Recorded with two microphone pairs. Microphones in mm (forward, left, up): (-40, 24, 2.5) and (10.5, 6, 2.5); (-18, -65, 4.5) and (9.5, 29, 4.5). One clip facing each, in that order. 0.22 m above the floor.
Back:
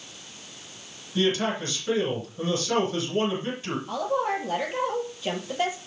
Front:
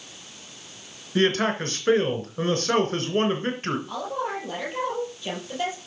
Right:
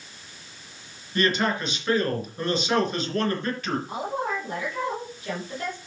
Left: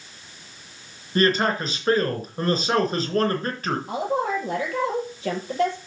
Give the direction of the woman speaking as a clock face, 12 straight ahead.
9 o'clock.